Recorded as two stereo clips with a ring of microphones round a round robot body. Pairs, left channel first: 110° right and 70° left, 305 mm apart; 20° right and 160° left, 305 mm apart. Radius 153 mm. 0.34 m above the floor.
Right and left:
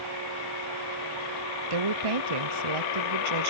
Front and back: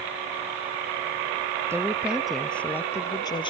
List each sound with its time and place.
1.7 s a woman speaking: 75° left; by 3.5 s 55° left